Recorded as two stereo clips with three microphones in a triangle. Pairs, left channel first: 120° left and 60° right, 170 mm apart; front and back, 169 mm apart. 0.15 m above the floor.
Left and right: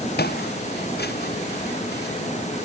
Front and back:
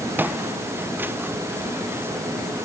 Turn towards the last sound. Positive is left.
turn(degrees=100)